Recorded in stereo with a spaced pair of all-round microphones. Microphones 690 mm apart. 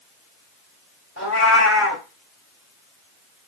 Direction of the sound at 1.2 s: 20° left (ahead or behind).